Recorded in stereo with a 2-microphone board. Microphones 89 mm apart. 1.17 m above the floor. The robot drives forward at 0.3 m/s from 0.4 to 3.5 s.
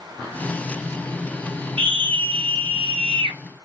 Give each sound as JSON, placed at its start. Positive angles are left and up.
{"t": 1.8, "sound": "a scream", "side_deg": -85, "distance_m": 1.0}